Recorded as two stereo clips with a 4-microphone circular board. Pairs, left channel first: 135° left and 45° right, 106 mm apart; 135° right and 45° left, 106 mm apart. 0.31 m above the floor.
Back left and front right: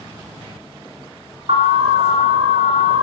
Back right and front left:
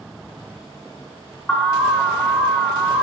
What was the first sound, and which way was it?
An alarm, 55° right.